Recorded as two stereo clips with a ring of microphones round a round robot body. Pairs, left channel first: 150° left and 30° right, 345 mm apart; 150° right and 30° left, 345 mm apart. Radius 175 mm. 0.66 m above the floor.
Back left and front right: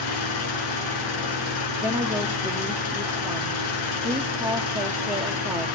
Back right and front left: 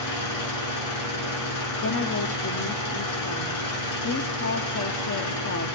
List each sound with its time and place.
0.0 s an engine running: 175° left, 6.5 m
1.8 s a woman speaking: 110° right, 1.2 m